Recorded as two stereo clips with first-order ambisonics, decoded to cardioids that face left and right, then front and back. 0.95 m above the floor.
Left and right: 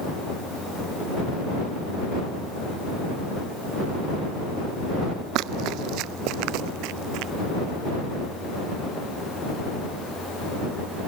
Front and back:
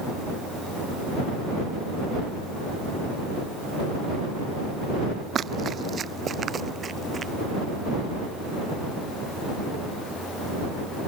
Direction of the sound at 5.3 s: 120° right.